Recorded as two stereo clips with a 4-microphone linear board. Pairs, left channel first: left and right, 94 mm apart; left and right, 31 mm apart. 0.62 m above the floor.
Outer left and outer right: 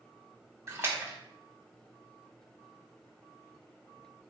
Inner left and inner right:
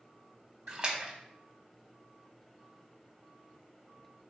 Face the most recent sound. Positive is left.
turn(degrees=-25)  # may be behind; listen again after turning